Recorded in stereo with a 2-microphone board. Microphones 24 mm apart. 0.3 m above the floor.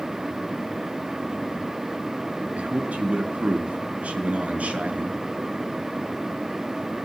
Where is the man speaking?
70° right (ahead or behind), 5 m.